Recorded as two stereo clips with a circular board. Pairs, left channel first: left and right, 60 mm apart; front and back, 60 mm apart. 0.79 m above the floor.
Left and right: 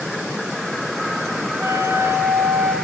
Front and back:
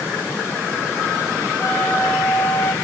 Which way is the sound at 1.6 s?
40° right.